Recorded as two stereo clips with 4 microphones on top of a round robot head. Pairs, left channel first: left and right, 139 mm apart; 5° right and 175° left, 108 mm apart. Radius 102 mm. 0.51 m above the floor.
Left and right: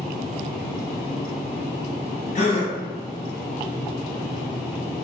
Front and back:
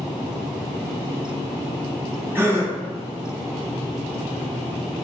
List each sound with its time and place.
2.4 s a gasp: 110° left, 1.1 m